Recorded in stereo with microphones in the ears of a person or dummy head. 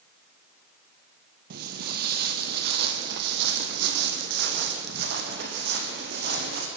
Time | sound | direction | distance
1.5 | footsteps | 55° right (ahead or behind) | 2 m